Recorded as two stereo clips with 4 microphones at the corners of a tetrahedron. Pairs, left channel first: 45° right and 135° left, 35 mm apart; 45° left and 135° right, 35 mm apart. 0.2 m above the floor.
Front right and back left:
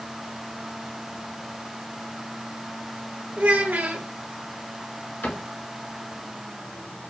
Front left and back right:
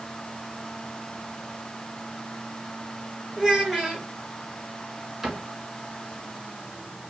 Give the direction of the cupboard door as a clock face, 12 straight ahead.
2 o'clock.